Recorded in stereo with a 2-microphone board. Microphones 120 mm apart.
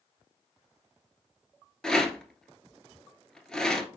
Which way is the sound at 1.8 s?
5° left (ahead or behind).